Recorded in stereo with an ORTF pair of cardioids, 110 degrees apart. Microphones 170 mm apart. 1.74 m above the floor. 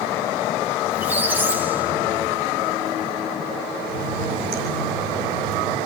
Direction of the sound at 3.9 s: 65° right.